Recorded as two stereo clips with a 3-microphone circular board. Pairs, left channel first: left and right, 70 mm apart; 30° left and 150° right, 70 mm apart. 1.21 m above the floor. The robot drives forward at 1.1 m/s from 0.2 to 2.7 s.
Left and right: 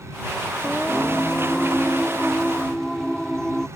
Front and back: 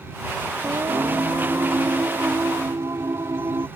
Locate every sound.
0.6 s singing: 170° left; by 3.7 s 175° left